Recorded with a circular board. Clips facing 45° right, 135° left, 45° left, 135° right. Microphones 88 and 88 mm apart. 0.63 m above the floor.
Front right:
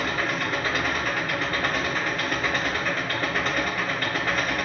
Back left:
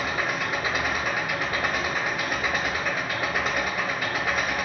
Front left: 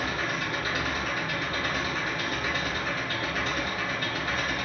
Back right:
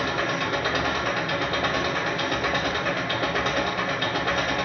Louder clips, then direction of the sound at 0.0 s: Front right 1 dB, back right 5 dB; 145° right.